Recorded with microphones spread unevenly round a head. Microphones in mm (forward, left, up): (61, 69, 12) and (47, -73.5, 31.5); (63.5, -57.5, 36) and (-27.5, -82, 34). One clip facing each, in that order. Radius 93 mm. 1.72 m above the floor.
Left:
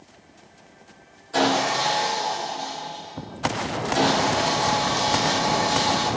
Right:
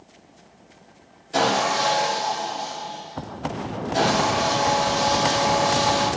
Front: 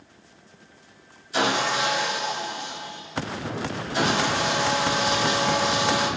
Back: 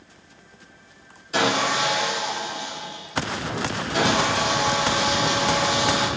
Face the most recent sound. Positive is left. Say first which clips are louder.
# even, back 2 dB
turn(degrees=-160)